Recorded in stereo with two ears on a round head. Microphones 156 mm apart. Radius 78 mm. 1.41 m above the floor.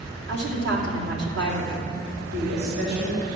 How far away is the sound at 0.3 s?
About 2.5 m.